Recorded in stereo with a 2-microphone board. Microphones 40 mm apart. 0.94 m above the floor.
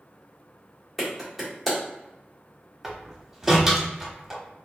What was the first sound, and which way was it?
A clap, 5° right (ahead or behind).